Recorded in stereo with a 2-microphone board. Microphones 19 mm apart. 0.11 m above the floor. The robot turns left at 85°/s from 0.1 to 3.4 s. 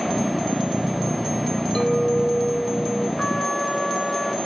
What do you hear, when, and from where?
1.8 s a clink: 135° left, 2 m; by 3.1 s 20° left, 2 m
3.2 s a trumpet: 30° left (ahead or behind), 0.6 m; by 4.3 s 25° left (ahead or behind), 0.6 m